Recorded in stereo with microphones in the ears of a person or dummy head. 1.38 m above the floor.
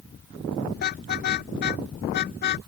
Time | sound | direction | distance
0.8 | a car horn | 50° left (ahead or behind) | ?